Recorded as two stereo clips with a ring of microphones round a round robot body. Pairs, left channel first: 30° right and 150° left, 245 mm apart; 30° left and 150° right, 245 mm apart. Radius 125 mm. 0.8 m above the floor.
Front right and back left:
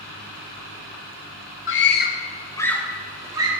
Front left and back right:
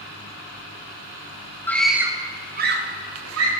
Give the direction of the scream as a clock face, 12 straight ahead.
2 o'clock.